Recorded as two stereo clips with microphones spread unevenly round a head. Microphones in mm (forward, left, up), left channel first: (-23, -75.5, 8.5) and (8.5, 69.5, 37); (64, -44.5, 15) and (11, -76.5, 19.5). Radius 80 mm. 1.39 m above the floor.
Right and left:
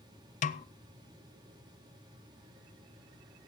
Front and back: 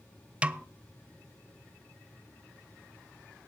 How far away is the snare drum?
About 0.6 m.